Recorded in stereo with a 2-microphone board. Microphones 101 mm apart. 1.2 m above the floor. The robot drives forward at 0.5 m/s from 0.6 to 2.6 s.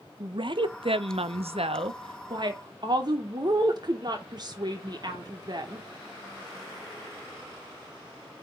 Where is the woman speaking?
55° right (ahead or behind), 0.7 m; by 5.9 s 45° right (ahead or behind), 0.8 m.